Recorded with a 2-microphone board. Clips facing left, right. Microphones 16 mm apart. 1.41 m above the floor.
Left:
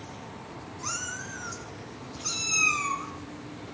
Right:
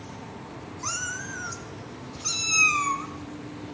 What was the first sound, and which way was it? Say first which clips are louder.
A cat meowing: right 3 dB; 20° right (ahead or behind).